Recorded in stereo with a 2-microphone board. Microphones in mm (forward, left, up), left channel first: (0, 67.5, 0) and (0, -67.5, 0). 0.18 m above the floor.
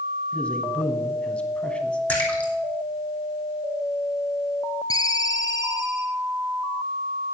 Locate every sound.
0.3 s a man speaking: 10° left (ahead or behind), 1.1 m
2.1 s a splash: 10° left (ahead or behind), 2.5 m
4.9 s a ringtone: 25° left (ahead or behind), 0.8 m